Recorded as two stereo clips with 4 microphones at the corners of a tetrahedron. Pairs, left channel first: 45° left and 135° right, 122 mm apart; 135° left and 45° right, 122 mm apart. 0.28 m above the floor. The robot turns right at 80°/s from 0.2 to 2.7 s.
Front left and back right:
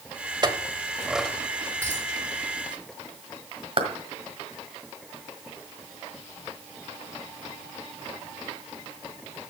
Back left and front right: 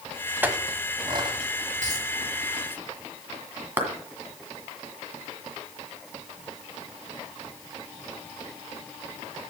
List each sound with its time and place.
0.4 s a clink: 110° right, 0.8 m; by 1.4 s 35° right, 0.8 m
1.8 s a dropped coin: 70° right, 6.5 m; by 2.0 s 50° right, 6.5 m
3.8 s a clap: 115° right, 1.6 m